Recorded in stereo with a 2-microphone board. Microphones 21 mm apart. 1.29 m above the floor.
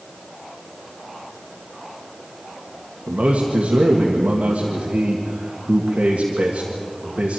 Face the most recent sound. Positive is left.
turn(degrees=-75)  # may be behind; listen again after turning